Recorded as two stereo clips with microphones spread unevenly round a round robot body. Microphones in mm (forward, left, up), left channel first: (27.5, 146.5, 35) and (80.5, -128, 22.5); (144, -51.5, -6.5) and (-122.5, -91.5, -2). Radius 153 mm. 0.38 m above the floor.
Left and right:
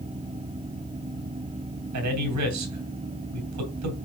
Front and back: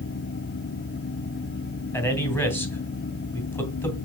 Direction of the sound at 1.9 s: 75° right.